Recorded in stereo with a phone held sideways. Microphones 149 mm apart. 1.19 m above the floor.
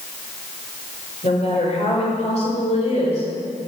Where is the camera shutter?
I don't hear a camera shutter.